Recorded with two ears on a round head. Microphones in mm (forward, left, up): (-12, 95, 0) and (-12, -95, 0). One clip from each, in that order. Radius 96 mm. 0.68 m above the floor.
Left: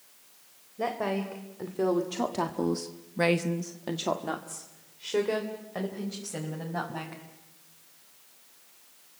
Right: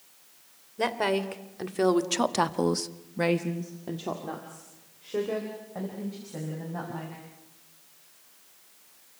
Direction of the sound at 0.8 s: 75° right (ahead or behind).